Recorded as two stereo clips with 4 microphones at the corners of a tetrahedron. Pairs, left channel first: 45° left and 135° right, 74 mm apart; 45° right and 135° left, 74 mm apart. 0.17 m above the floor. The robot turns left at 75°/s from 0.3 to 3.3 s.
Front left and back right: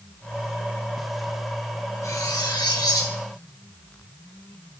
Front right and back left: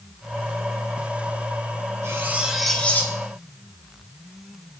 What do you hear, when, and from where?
2.0 s cutlery clinking: 90° left, 1.9 m; by 3.2 s 5° left, 1.9 m